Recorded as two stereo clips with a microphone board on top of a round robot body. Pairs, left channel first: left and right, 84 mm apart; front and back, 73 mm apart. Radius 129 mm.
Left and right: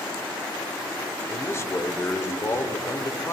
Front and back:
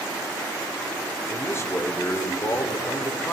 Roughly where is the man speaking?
Ahead left.